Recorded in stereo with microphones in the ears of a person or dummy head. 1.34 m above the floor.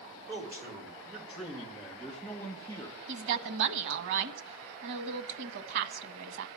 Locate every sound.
0.3 s a man speaking: 15° right (ahead or behind), 3 m; by 3.0 s 15° left (ahead or behind), 1.7 m
3.1 s a woman speaking: 65° right (ahead or behind), 1.4 m